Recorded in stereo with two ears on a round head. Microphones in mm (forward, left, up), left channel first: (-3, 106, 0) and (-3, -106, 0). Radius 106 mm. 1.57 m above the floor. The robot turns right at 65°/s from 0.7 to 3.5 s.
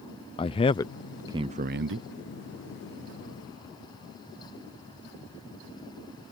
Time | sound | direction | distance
0.4 | a man speaking | 20° left (ahead or behind) | ?